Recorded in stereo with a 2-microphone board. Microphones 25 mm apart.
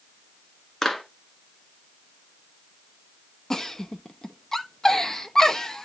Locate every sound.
0.8 s a clap: 20° left (ahead or behind), 1.5 m
3.5 s a giggle: 20° left (ahead or behind), 0.8 m